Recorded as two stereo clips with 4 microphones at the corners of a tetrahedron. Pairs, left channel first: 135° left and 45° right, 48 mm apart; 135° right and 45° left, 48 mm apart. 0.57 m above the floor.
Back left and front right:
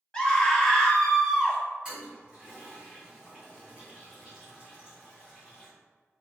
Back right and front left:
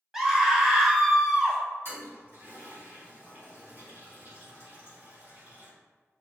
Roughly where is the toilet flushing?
Ahead left.